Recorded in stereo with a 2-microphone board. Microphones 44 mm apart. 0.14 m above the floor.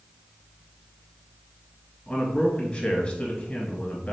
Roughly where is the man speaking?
Left.